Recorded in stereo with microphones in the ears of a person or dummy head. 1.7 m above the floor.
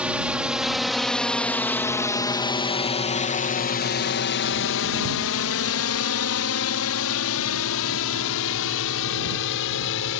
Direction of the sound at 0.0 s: 5° right (ahead or behind).